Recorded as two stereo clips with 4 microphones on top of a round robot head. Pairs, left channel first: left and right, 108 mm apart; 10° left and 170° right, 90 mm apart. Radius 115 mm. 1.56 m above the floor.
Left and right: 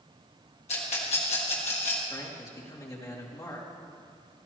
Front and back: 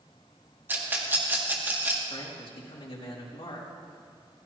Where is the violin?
I don't hear a violin.